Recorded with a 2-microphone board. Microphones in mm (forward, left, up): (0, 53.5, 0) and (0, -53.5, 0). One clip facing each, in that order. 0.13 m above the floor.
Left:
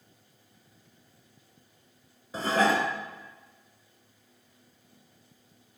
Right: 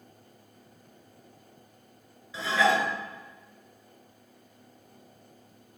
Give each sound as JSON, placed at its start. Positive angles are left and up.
{"t": 2.3, "sound": "dishes clattering", "side_deg": 45, "distance_m": 1.0}